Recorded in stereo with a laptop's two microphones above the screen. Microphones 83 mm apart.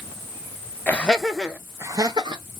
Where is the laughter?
20° left (ahead or behind), 1.0 m; by 2.4 s 60° right (ahead or behind), 1.0 m.